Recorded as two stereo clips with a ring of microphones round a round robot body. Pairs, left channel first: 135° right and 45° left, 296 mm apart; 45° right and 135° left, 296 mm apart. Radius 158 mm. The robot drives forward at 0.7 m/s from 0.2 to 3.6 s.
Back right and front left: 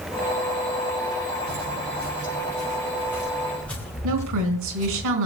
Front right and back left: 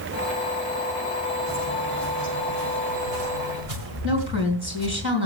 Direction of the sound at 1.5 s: 90° left.